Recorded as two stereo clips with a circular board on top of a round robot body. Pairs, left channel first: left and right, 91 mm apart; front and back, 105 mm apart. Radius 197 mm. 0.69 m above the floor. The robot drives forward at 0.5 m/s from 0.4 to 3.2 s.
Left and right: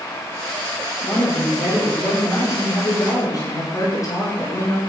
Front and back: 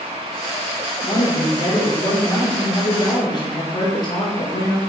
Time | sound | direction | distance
1.0 | a woman speaking | 30° left | 3.5 m